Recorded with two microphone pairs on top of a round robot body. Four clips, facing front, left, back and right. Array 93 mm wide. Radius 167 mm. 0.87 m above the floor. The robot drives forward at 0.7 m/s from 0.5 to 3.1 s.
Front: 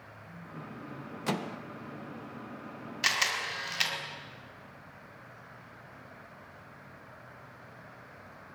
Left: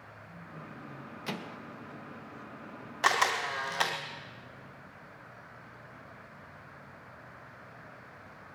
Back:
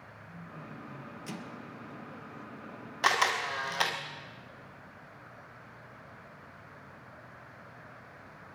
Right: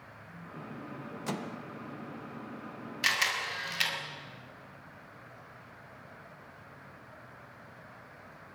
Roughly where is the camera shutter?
Behind left.